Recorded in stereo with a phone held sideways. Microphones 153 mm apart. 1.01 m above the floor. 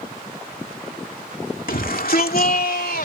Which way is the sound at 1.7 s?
70° left (ahead or behind).